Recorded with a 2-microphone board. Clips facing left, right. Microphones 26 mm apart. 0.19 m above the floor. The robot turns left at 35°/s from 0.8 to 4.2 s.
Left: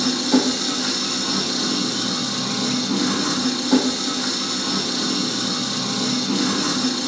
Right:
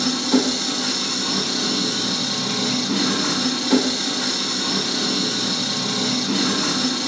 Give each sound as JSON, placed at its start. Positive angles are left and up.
{"t": 0.0, "sound": "an engine running", "azimuth_deg": 0, "distance_m": 2.0}